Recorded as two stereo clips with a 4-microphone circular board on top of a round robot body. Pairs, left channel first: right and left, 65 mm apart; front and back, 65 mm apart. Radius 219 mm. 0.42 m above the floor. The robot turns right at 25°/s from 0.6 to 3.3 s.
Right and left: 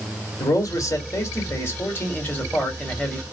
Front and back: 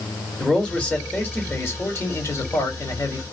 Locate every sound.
0.4 s a man speaking: 75° right, 1.8 m; by 3.2 s 10° right, 1.8 m